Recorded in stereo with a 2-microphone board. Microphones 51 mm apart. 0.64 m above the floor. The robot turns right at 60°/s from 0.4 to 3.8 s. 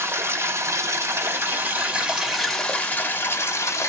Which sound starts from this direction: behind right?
Running water, at 0.0 s.